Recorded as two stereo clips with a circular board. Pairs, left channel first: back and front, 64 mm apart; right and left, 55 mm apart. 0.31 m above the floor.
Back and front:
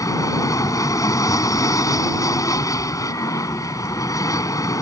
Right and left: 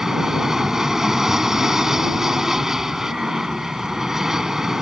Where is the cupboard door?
No cupboard door in this recording.